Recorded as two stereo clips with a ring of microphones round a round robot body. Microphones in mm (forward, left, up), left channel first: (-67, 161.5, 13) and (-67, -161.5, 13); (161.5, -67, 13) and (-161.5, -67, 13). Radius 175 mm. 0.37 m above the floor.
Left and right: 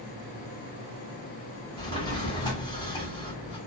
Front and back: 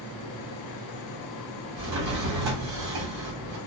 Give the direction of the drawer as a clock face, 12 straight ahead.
6 o'clock.